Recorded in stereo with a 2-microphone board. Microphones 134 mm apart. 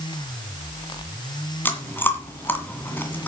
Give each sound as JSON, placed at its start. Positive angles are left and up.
{"t": 1.6, "sound": "chewing", "side_deg": 15, "distance_m": 2.0}